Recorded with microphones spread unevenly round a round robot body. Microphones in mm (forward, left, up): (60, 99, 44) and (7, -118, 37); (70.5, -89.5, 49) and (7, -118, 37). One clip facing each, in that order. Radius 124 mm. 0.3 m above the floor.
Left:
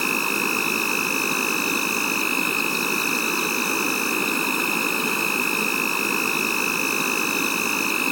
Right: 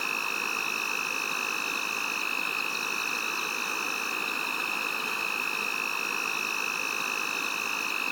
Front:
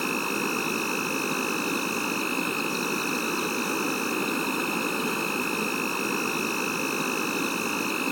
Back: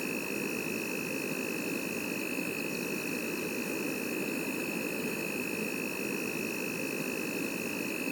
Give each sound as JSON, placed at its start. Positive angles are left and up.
{"t": 0.0, "sound": "an insect", "azimuth_deg": 60}